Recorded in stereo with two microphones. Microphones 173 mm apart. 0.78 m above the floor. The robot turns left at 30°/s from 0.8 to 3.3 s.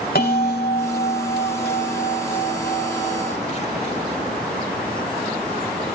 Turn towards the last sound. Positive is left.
turn(degrees=40)